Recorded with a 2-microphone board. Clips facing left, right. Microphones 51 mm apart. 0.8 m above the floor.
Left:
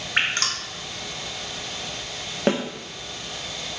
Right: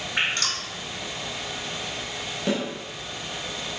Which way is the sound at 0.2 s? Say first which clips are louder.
Left 2 dB; 45° left (ahead or behind).